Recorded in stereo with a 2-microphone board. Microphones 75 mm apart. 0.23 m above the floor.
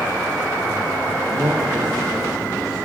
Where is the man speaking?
45° right (ahead or behind), 6.5 m; by 2.9 s 50° right (ahead or behind), 7.5 m.